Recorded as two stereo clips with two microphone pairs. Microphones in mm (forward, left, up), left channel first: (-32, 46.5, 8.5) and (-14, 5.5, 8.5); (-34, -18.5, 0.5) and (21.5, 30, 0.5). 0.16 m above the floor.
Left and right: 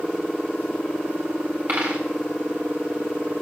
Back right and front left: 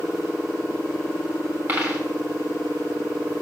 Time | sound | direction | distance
1.7 | a dropped coin | 15° right | 4 m